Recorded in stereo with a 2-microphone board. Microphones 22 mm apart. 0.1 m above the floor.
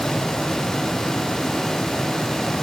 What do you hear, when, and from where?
Only background noise.